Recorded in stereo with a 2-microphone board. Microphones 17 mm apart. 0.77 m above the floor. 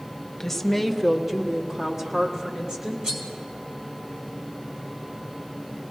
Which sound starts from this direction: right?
Cutlery clinking, at 3.0 s.